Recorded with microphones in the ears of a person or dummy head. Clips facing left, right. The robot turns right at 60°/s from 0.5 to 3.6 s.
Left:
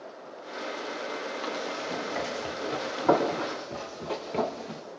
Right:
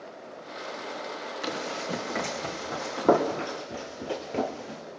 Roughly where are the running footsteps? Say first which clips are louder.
Right 4 dB; centre.